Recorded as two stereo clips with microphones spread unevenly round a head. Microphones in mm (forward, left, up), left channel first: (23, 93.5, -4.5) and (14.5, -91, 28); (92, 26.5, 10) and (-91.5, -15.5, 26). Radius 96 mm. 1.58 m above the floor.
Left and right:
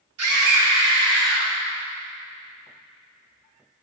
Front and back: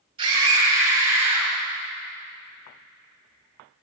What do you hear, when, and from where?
0.2 s a scream: 100° right, 5 m; by 1.5 s 85° right, 6 m